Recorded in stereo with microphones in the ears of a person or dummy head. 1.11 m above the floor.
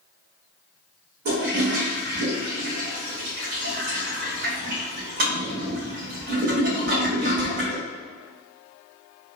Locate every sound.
1.2 s a toilet flushing: 50° right (ahead or behind), 1.2 m